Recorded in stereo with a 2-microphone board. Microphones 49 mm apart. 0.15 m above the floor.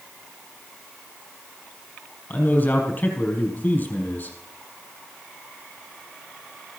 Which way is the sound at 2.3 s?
30° left (ahead or behind).